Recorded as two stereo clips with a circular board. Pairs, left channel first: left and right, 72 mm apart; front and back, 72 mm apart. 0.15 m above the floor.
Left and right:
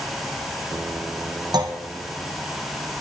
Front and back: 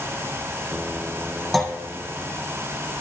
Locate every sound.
1.5 s a clunk: 90° right, 2.5 m